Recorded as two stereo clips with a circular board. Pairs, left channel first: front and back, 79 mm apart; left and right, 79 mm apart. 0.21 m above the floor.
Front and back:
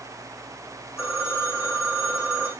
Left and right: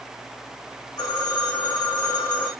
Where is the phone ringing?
55° left, 6 m.